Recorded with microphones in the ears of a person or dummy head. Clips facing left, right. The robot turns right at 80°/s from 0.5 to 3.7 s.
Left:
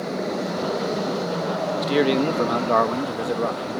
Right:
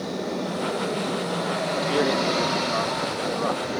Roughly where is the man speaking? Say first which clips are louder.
Left 4 dB; ahead.